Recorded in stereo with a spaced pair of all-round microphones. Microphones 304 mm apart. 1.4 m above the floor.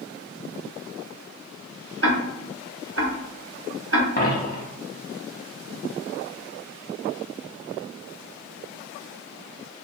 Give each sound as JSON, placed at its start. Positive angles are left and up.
{"t": 2.0, "sound": "ticking", "side_deg": -50, "distance_m": 0.6}
{"t": 4.2, "sound": "a dropped coin", "side_deg": 30, "distance_m": 0.9}